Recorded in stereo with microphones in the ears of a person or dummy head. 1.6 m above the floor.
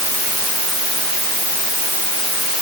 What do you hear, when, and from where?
Only background noise.